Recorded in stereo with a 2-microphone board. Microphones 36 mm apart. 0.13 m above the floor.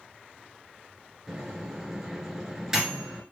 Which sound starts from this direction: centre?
A microwave, at 1.3 s.